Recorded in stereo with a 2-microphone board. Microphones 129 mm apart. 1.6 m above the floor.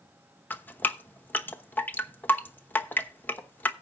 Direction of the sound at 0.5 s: 15° left (ahead or behind).